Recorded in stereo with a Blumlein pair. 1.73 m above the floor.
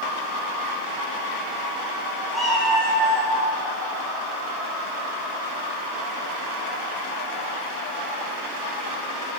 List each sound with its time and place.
2.3 s a cat meowing: 5° right, 4.5 m